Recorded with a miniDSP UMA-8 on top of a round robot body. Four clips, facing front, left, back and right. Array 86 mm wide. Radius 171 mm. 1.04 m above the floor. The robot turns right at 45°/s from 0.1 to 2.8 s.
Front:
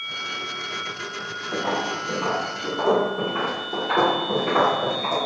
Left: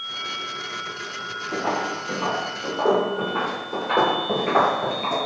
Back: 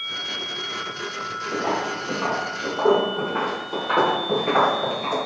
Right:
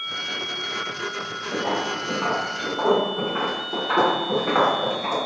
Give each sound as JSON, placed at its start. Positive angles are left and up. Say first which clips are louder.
{"t": 1.5, "sound": "footsteps", "louder": "even, even", "azimuth_deg": -175, "distance_m": 1.5}